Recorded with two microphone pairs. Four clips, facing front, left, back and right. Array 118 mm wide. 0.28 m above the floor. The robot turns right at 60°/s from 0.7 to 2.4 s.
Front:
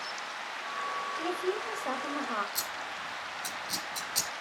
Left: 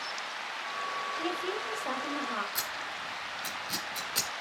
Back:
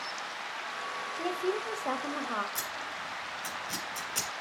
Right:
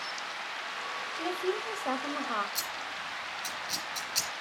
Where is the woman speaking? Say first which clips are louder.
Right 5 dB, back 2 dB; 155° right, 1.3 m; by 2.5 s 80° right, 1.3 m.